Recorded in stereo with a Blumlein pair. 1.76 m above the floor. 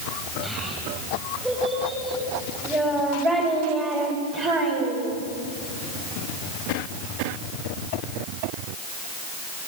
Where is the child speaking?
5° right, 6.5 m; by 5.2 s 40° right, 4.5 m.